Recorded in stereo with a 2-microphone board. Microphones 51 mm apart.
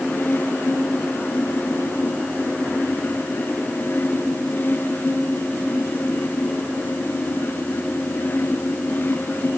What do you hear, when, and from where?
Only background noise.